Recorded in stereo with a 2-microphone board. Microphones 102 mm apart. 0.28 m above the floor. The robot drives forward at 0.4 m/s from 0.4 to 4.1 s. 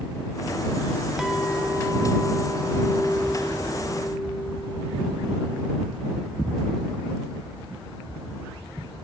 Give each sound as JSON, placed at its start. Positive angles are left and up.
{"t": 1.2, "sound": "a clink", "side_deg": -5, "distance_m": 1.2}